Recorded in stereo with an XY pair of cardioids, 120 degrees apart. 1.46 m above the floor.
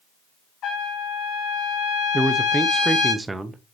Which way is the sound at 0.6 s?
65° left.